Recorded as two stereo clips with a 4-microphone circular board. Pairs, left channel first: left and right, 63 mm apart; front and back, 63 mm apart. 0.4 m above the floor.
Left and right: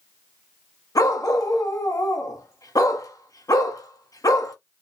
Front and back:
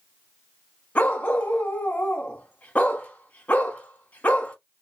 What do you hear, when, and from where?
0.9 s a dog barking: 70° left, 0.9 m